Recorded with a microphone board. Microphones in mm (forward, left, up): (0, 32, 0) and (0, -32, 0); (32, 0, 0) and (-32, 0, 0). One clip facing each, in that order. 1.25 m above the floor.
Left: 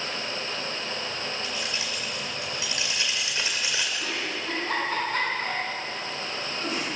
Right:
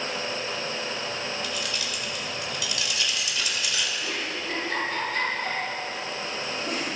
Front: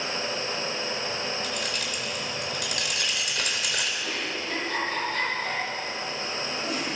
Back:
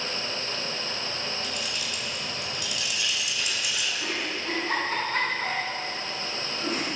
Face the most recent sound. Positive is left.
turn(degrees=135)